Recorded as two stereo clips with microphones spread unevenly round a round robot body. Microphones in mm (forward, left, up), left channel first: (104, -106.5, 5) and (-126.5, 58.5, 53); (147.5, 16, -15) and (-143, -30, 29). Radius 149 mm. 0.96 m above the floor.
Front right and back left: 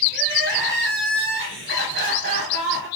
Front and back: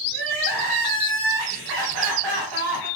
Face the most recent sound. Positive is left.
turn(degrees=-170)